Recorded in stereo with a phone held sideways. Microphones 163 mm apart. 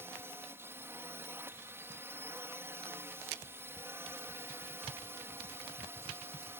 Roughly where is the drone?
Centre.